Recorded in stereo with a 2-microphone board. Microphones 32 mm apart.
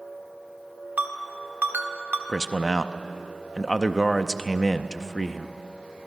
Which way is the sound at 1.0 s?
70° right (ahead or behind).